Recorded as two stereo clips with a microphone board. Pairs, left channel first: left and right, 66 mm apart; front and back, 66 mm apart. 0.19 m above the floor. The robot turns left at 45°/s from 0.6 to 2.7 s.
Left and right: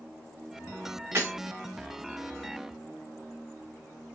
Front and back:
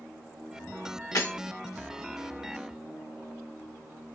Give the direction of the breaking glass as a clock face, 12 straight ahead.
1 o'clock.